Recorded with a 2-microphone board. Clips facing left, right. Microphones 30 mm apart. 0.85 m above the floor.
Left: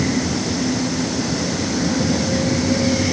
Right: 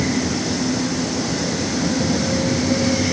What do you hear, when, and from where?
Only background noise.